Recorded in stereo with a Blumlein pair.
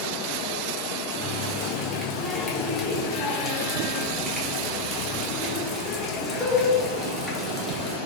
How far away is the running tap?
About 1.1 m.